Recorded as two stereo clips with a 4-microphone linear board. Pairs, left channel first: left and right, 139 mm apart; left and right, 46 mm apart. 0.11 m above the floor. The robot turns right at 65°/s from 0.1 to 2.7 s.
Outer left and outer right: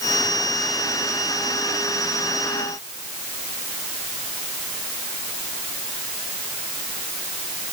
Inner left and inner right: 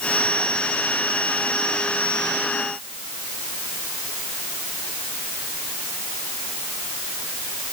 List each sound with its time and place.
Only background noise.